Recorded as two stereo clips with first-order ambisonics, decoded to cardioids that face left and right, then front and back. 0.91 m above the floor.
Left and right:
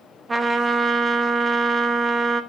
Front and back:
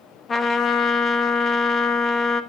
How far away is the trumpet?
About 0.6 m.